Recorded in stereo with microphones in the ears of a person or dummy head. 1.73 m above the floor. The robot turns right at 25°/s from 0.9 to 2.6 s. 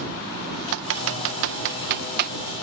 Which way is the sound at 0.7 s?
80° right.